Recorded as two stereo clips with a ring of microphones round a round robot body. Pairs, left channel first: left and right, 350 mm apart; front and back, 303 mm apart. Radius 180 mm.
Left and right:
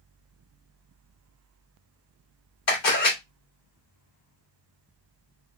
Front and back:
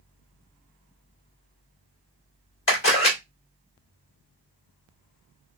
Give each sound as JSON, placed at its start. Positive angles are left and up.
{"t": 2.7, "sound": "a camera shutter", "azimuth_deg": 45, "distance_m": 2.5}